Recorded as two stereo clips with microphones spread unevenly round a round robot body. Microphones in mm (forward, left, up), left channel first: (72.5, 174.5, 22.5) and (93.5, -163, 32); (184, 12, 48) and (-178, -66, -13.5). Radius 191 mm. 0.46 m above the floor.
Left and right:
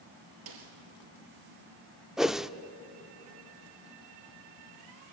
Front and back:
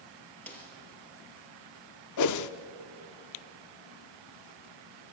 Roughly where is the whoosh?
Ahead.